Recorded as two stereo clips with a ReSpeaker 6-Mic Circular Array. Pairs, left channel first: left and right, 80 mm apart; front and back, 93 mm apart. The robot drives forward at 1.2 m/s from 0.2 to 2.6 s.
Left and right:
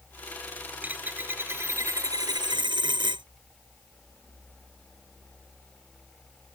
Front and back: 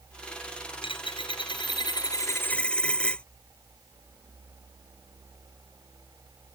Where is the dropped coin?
20° right; by 3.2 s 80° right.